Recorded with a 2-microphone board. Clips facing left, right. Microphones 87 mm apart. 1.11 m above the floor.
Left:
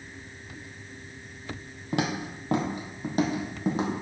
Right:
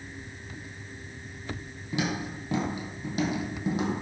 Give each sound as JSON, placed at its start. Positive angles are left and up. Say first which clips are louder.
{"t": 1.9, "sound": "footsteps", "louder": "left 2 dB", "side_deg": 55, "distance_m": 1.9}